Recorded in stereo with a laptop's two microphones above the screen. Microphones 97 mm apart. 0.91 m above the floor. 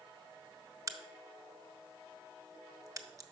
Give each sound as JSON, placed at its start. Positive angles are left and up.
{"t": 0.9, "sound": "a crack", "side_deg": -35, "distance_m": 0.5}